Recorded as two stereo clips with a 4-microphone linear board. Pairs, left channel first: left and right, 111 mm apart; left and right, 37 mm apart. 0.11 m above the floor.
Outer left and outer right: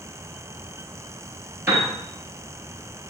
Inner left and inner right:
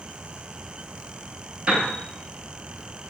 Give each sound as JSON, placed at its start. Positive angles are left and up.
{"t": 1.7, "sound": "a piano", "side_deg": -20, "distance_m": 1.2}